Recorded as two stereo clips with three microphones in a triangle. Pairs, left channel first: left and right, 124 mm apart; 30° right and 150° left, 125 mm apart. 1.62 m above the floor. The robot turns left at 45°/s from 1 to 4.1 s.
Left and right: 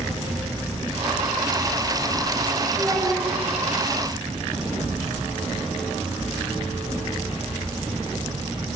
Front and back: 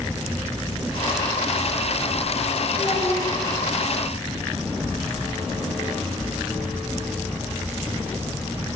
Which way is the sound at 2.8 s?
20° left.